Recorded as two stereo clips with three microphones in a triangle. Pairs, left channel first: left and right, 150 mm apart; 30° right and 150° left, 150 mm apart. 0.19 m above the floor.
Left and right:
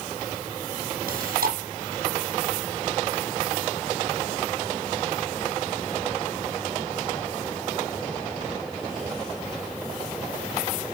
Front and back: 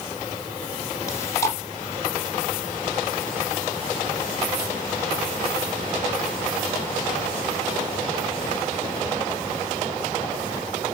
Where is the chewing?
100° right, 2.5 m.